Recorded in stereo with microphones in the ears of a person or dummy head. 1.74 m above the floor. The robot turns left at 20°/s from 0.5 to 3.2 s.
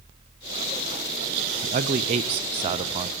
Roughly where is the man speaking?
Right.